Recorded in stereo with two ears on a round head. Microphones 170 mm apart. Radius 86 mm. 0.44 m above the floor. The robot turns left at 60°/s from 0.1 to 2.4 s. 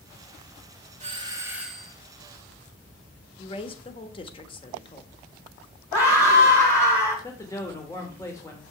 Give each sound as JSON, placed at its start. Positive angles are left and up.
{"t": 1.0, "sound": "a doorbell", "azimuth_deg": -135, "distance_m": 1.8}
{"t": 3.4, "sound": "a woman speaking", "side_deg": 30, "distance_m": 1.1}
{"t": 5.9, "sound": "a scream", "side_deg": 20, "distance_m": 5.0}
{"t": 7.2, "sound": "a man speaking", "side_deg": 15, "distance_m": 1.2}